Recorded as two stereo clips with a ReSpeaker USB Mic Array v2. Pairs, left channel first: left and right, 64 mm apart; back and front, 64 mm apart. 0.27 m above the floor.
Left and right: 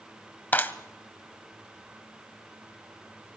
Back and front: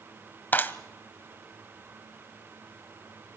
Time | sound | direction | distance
0.5 | a clap | 140° left | 1.1 m